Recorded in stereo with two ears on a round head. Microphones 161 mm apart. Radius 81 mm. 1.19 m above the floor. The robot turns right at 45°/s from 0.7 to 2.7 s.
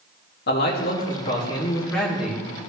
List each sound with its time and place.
0.5 s a man speaking: 115° left, 2.5 m; by 2.5 s 165° right, 2.5 m